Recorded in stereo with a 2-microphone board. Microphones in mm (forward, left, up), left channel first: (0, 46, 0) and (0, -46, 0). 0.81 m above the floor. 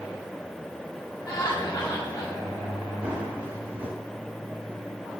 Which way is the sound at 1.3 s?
50° left (ahead or behind).